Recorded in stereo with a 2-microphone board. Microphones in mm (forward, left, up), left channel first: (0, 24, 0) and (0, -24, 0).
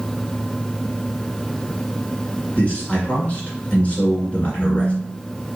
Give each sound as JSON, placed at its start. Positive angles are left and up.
{"t": 2.5, "sound": "a man speaking", "side_deg": 30, "distance_m": 1.5}
{"t": 4.6, "sound": "a phone buzzing", "side_deg": 50, "distance_m": 0.5}